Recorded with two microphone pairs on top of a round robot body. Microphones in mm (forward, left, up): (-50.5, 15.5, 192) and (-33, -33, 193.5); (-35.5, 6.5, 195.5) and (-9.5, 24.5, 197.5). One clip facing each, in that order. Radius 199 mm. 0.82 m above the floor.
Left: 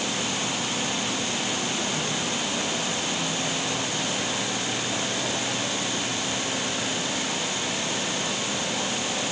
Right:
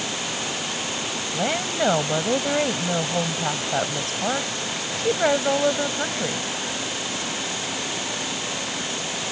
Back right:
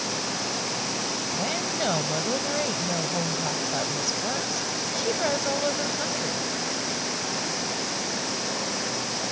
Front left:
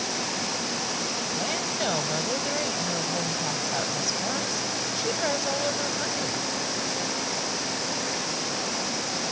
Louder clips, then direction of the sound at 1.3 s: Right 4 dB, back right 1 dB; 55° right.